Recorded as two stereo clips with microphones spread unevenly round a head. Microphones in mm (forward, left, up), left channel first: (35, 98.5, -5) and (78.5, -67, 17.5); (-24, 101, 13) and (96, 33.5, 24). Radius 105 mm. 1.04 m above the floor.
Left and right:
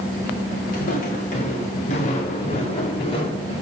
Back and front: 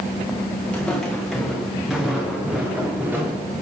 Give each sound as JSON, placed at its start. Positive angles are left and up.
{"t": 0.7, "sound": "footsteps", "azimuth_deg": 65, "distance_m": 4.0}